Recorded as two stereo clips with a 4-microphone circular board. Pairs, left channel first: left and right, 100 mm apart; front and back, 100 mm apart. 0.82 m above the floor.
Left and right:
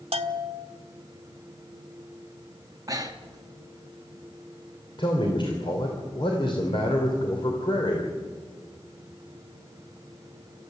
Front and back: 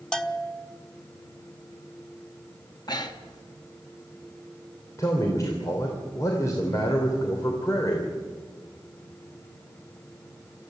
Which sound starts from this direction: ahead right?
Breathing, at 2.9 s.